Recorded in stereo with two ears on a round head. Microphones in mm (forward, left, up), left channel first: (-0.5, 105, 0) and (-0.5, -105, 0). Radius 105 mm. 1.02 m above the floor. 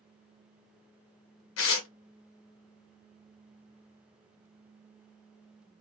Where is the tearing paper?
60° left (ahead or behind), 0.6 m.